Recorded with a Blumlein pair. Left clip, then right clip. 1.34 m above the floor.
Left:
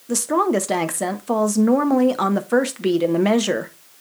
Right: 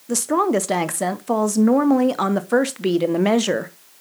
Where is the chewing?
No chewing in this recording.